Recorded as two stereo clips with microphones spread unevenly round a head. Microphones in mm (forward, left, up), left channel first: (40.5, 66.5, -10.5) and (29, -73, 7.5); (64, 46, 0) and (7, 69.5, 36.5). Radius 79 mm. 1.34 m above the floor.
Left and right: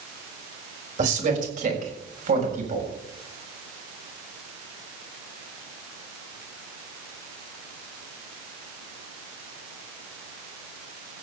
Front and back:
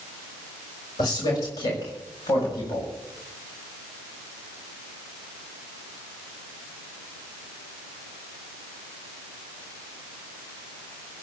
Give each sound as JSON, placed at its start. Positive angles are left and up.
{"t": 1.0, "sound": "a man speaking", "azimuth_deg": -65, "distance_m": 5.5}